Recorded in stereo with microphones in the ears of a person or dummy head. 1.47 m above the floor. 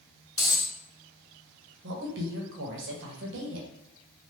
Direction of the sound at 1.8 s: 65° right (ahead or behind).